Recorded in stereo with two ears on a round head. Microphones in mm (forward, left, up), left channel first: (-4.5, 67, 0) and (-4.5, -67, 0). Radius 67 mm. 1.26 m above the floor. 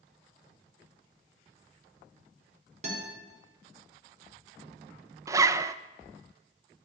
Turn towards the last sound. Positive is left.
turn(degrees=-20)  # may be behind; listen again after turning